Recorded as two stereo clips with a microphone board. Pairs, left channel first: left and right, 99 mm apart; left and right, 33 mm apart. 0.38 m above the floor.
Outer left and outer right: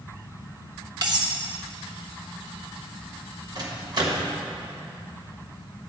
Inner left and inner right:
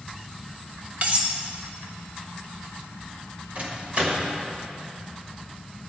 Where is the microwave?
45° right (ahead or behind), 1.4 m.